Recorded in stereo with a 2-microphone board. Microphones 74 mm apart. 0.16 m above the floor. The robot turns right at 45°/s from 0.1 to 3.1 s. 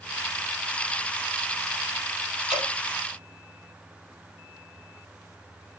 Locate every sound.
2.5 s dripping: 10° right (ahead or behind), 4 m; by 2.7 s 5° right (ahead or behind), 4 m